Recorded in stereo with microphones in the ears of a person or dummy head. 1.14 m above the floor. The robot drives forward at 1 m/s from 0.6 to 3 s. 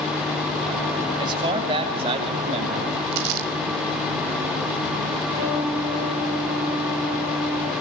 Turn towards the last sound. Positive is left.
turn(degrees=-25)  # may be behind; listen again after turning